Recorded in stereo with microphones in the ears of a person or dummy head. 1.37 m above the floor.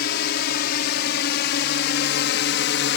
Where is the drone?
60° left (ahead or behind); by 3.0 s 65° left (ahead or behind).